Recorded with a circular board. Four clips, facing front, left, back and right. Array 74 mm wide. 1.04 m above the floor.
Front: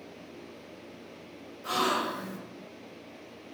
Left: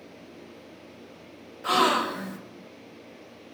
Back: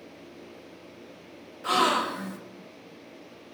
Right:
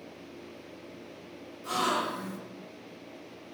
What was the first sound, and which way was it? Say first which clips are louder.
A gasp: left 7 dB, back 5 dB; 120° left.